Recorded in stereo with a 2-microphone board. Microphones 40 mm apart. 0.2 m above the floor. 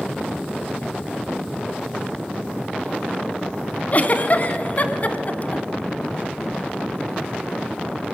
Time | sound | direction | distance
3.9 | a giggle | 40° left (ahead or behind) | 1.0 m